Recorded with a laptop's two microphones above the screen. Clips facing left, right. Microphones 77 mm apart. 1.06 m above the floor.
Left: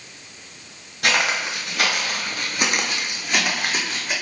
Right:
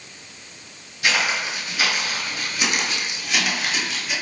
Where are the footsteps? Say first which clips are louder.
Left 1 dB; 55° left (ahead or behind), 1.8 m; by 4.1 s 40° left (ahead or behind), 3 m.